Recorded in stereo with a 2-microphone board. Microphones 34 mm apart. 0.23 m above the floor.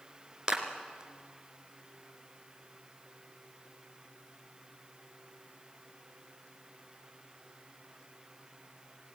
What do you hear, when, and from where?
0.5 s a clap: 25° right (ahead or behind), 2.5 m